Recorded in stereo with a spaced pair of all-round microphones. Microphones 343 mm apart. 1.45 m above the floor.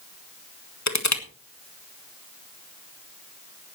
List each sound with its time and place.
0.9 s crushing: 50° left (ahead or behind), 1.5 m